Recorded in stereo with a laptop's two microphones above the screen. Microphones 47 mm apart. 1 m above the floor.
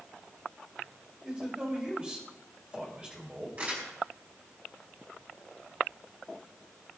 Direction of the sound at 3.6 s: 35° right (ahead or behind).